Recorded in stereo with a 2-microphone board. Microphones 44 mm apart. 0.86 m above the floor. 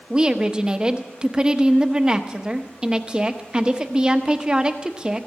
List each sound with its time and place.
0.1 s a woman speaking: 20° right (ahead or behind), 1.0 m